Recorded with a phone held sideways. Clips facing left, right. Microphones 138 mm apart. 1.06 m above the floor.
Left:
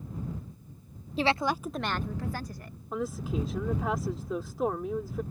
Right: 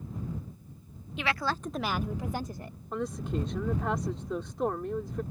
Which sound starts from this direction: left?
A woman speaking, at 1.2 s.